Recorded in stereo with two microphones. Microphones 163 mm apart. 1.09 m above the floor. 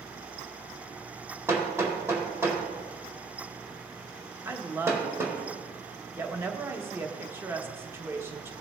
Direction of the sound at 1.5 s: 15° right (ahead or behind).